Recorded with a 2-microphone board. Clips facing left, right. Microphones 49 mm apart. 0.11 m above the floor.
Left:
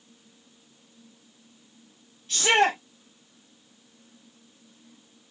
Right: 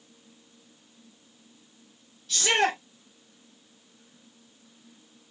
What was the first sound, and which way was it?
A shout, 35° left (ahead or behind).